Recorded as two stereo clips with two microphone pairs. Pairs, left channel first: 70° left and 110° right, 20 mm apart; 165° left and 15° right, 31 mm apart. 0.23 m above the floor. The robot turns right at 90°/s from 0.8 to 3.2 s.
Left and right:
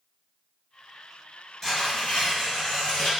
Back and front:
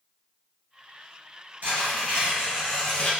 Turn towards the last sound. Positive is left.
turn(degrees=130)